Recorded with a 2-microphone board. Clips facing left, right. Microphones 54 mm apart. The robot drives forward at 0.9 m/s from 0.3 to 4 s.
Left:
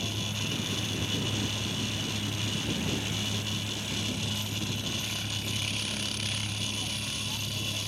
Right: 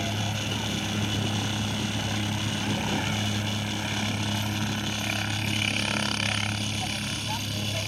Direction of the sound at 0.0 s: 55° right (ahead or behind).